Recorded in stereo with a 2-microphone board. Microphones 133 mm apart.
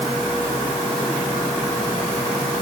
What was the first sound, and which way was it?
Only background noise.